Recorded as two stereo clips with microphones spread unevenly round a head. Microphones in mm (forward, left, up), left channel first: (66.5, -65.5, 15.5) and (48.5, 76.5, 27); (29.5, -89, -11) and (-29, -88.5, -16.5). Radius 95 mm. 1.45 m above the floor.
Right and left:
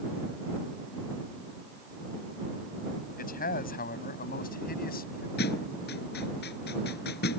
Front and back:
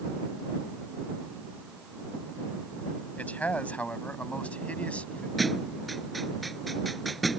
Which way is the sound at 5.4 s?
90° right.